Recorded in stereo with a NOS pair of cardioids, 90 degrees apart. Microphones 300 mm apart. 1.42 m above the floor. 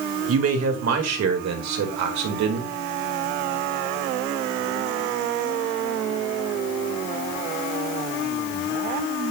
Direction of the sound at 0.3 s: 50° right.